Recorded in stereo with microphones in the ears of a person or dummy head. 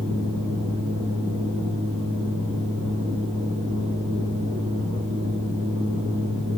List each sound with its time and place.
0.0 s a fan: 70° right (ahead or behind), 1.4 m